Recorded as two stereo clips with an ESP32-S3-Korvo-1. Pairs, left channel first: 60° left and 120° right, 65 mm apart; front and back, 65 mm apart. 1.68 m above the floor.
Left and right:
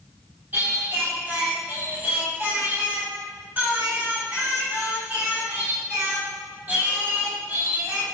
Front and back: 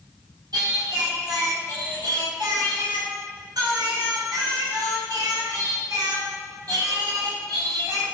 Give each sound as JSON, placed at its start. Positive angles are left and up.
{"t": 0.5, "sound": "singing", "azimuth_deg": 175, "distance_m": 2.0}